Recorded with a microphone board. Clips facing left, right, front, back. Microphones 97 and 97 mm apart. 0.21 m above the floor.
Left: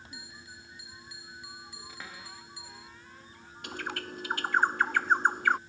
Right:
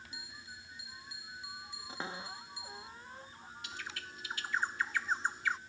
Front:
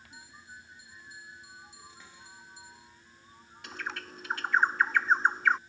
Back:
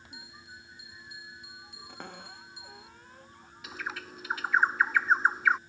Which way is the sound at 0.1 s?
155° right.